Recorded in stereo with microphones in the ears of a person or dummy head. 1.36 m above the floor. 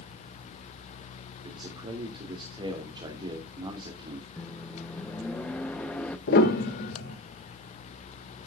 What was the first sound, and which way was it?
A man speaking, 25° right (ahead or behind).